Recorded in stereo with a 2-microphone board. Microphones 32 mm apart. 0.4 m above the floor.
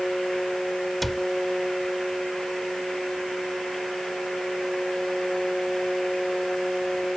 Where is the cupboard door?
5° left (ahead or behind).